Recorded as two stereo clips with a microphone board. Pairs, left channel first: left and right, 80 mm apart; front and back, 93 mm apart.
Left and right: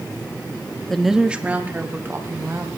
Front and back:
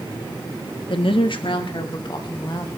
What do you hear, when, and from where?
0.9 s a woman speaking: 5° left, 1.2 m; by 2.7 s 35° right, 3 m